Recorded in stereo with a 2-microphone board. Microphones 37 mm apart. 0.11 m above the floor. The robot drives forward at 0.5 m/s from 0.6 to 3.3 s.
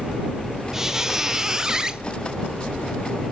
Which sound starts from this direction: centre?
A squeak, at 0.7 s.